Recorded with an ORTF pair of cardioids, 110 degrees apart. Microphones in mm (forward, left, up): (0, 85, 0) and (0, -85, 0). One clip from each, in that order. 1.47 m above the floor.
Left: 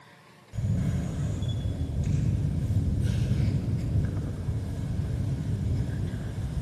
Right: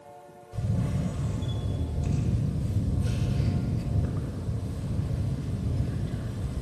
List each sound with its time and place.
0.5 s a camera shutter: 15° right, 5.5 m